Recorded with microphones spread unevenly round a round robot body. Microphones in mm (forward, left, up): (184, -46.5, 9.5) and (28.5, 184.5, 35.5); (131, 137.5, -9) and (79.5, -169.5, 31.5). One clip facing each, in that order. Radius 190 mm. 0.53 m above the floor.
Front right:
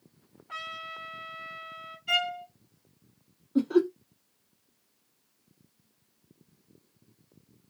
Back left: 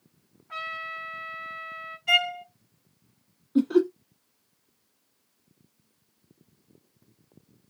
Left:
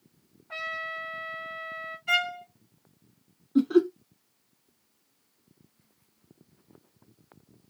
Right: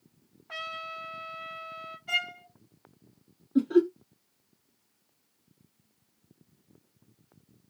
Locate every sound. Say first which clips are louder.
0.5 s a trumpet: back left 4 dB, left 3 dB; 90° right, 1.8 m
2.1 s a violin: back left 3 dB, left 9 dB; 120° left, 1.3 m
3.5 s laughter: back left 2 dB, left 1 dB; 115° left, 1.2 m